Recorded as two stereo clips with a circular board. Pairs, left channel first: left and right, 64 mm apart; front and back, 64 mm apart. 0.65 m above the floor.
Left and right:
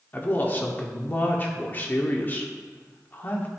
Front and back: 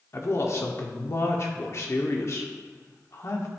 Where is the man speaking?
35° left, 1.2 m.